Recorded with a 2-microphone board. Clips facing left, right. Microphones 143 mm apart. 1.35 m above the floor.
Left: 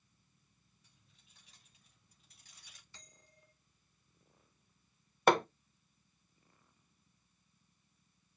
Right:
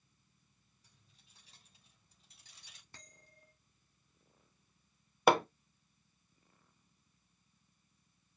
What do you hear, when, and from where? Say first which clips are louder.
0.8 s keys jangling: right 2 dB; 35° right (ahead or behind), 3.5 m; by 2.8 s 25° right (ahead or behind), 5 m
2.9 s a bell: right 3 dB; 55° right (ahead or behind), 3 m
5.3 s hammering: right 1 dB; 5° right (ahead or behind), 0.7 m